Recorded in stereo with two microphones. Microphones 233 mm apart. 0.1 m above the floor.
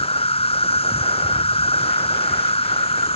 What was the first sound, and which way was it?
An insect, 25° left (ahead or behind).